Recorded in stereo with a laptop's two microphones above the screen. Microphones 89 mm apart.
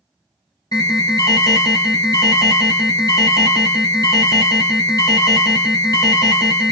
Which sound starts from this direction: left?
An alarm, at 0.7 s.